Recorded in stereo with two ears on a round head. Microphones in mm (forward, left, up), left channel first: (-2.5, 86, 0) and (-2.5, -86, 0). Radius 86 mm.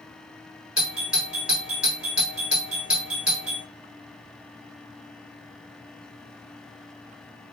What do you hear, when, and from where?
0.8 s a doorbell: 5° right (ahead or behind), 1.5 m